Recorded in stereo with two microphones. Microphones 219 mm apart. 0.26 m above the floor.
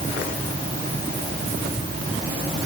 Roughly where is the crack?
I don't hear a crack.